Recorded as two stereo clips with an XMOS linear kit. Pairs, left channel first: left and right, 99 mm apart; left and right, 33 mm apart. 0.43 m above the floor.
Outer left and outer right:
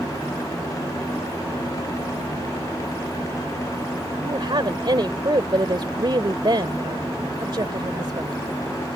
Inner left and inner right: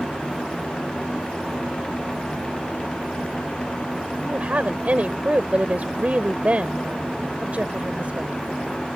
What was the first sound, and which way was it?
A woman speaking, 55° right (ahead or behind).